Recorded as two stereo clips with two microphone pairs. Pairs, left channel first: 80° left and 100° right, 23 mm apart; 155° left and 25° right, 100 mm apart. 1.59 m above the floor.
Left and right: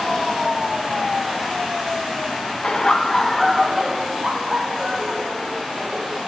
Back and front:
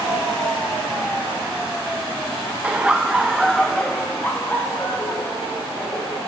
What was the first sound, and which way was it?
Laughter, 45° left.